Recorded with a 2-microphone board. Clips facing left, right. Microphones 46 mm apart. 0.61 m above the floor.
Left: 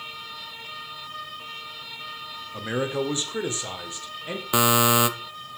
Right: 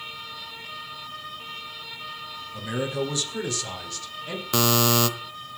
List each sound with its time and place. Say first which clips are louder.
2.5 s a man speaking: left 2 dB; 40° left (ahead or behind), 1.8 m; by 4.4 s 20° left (ahead or behind), 2.5 m
4.5 s a buzzer: left 2 dB; 15° left (ahead or behind), 0.6 m